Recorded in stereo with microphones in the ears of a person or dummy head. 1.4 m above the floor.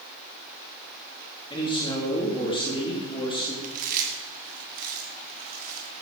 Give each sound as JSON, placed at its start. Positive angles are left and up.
{"t": 1.5, "sound": "a man speaking", "side_deg": 20, "distance_m": 3.0}
{"t": 3.6, "sound": "chewing", "side_deg": -45, "distance_m": 2.5}